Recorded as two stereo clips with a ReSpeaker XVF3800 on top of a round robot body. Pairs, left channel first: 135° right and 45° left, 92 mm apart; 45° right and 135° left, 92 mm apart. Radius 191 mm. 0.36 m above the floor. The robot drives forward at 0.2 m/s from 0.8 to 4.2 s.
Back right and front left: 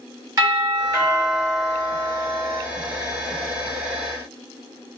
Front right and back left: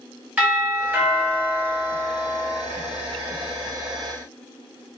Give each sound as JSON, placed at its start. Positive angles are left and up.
{"t": 0.4, "sound": "a doorbell", "azimuth_deg": 70, "distance_m": 1.9}